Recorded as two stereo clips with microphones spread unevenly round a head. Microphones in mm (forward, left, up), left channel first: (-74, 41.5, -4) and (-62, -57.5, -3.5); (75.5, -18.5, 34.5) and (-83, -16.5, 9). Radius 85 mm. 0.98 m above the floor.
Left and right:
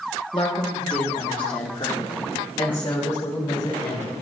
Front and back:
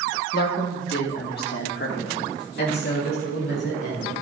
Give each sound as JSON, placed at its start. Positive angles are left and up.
{"t": 0.3, "sound": "a woman speaking", "azimuth_deg": 35, "distance_m": 1.6}